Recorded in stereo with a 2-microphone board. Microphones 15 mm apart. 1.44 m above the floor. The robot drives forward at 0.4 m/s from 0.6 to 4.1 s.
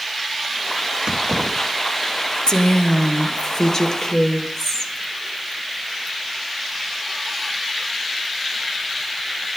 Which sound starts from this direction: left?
A woman speaking, at 2.5 s.